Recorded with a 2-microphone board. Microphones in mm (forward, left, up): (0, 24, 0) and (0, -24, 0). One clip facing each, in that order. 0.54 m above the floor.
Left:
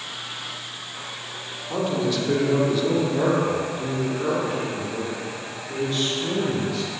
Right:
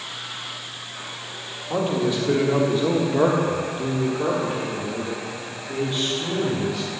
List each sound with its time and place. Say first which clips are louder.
1.7 s a man speaking: right 1 dB; 15° right (ahead or behind), 1.6 m